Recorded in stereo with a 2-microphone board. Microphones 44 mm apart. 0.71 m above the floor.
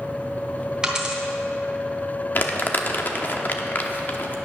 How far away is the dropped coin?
About 2 m.